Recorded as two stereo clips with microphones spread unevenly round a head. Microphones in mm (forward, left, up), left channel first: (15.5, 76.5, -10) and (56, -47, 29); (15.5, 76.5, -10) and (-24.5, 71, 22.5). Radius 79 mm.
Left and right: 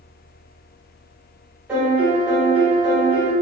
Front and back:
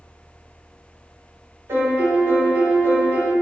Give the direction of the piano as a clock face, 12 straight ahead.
5 o'clock.